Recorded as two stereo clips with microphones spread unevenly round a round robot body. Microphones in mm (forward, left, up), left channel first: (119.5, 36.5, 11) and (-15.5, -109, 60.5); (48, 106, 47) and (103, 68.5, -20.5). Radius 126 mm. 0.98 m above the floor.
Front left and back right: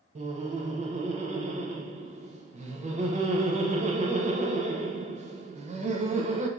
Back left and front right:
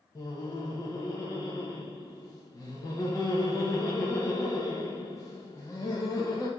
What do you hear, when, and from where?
0.1 s laughter: 95° right, 0.6 m